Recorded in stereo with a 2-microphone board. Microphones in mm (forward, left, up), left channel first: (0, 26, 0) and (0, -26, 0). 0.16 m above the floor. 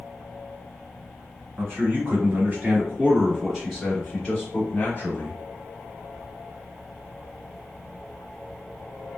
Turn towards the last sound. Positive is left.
turn(degrees=35)  # may be behind; listen again after turning